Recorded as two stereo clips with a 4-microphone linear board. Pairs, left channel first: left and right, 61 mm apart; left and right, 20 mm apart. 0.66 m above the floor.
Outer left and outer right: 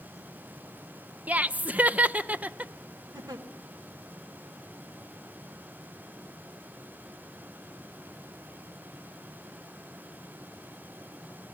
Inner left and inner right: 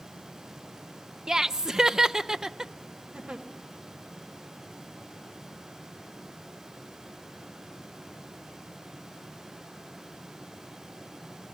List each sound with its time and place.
1.3 s laughter: 25° right (ahead or behind), 0.5 m
3.1 s a giggle: 80° right, 1.8 m